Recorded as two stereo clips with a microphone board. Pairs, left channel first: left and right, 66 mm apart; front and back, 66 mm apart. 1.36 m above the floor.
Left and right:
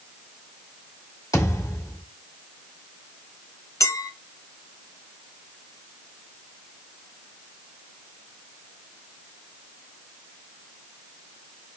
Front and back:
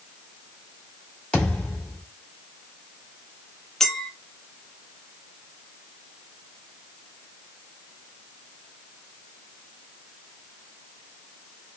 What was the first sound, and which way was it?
A thud, 75° left.